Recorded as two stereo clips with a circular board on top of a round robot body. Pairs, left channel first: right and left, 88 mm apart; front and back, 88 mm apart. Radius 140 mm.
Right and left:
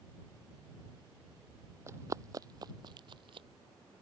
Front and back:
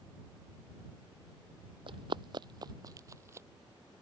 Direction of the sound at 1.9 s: 150° left.